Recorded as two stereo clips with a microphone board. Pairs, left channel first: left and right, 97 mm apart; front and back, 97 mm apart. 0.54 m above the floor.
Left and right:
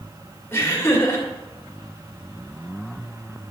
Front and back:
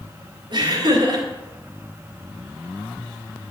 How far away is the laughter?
About 2 m.